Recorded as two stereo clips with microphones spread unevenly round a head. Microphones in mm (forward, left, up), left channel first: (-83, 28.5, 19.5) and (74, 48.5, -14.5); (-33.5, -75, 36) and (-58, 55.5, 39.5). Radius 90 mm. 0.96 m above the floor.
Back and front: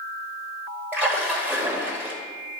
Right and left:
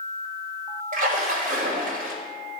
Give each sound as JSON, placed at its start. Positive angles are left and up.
{"t": 0.9, "sound": "a splash", "azimuth_deg": 80, "distance_m": 2.0}